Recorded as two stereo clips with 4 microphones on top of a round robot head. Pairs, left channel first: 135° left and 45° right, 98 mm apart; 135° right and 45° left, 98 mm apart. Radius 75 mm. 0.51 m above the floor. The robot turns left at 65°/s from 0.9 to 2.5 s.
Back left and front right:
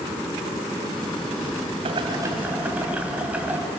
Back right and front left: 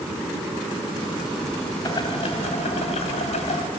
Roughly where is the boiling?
Right.